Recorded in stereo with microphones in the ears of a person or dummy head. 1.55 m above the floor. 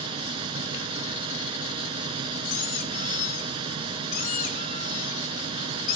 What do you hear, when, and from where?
0.0 s a fan: 35° right (ahead or behind), 1.4 m
2.5 s a squeak: 45° left (ahead or behind), 2 m